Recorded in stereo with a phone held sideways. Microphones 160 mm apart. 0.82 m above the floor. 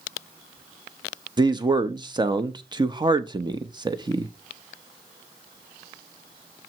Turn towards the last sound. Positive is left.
turn(degrees=-30)  # may be behind; listen again after turning